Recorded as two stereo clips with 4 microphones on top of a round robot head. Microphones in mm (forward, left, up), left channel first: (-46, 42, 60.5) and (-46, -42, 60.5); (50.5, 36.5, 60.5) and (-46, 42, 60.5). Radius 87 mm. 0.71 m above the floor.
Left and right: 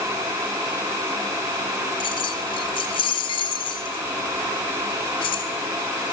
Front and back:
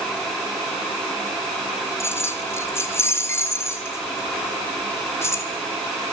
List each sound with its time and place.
2.0 s keys jangling: 60° left, 2.5 m